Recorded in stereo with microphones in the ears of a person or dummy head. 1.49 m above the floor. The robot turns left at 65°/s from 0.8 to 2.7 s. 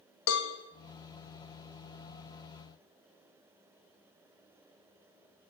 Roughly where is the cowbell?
Left.